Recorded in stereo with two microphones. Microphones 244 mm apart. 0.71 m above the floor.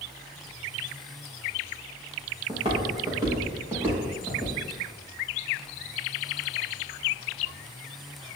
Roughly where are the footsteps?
Right.